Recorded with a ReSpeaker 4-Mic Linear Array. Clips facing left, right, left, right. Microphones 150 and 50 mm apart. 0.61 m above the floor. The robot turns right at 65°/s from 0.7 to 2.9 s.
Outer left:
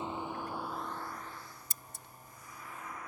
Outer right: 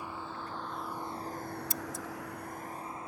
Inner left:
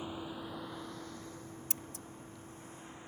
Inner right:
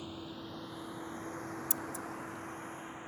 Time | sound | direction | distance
0.0 | a vehicle | 20° left (ahead or behind) | ?
1.7 | scissors | 50° left (ahead or behind) | ?